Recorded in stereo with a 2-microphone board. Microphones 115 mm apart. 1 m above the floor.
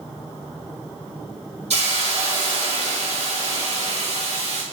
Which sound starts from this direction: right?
A hiss, at 1.7 s.